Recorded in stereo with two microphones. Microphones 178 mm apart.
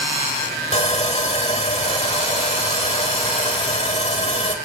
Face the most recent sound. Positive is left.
turn(degrees=35)  # may be behind; listen again after turning